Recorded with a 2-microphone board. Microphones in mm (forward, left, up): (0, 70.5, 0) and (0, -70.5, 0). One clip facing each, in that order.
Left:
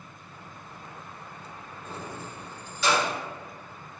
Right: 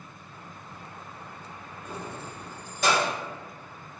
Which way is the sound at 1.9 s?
10° right (ahead or behind).